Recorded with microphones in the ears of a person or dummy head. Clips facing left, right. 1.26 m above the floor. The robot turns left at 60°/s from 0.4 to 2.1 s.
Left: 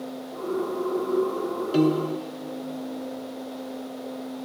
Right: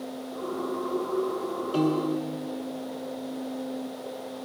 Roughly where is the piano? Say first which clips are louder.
Left 3 dB; left.